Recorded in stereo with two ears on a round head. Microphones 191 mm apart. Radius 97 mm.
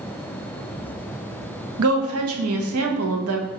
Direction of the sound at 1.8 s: 70° right (ahead or behind).